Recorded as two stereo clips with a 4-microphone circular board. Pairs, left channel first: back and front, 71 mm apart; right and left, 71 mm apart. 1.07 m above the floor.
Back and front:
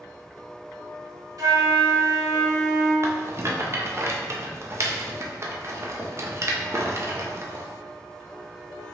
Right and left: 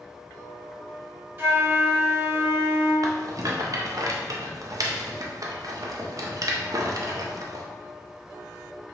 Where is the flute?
35° left, 1.9 m.